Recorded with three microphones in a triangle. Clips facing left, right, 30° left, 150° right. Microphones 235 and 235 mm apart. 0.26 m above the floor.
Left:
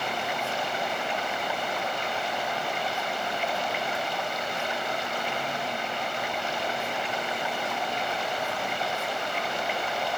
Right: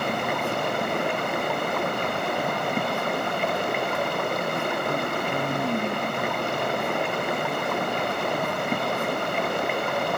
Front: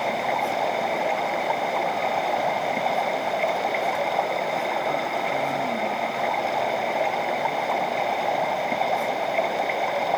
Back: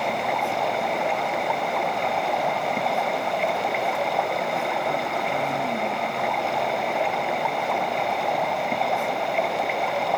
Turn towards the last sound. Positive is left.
turn(degrees=-60)